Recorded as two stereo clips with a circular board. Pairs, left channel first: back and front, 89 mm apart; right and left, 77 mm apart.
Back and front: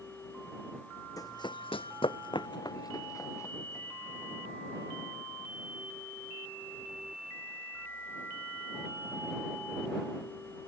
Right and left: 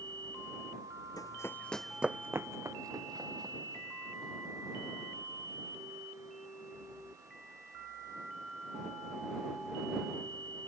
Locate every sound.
1.2 s running footsteps: 130° right; by 4.3 s 120° left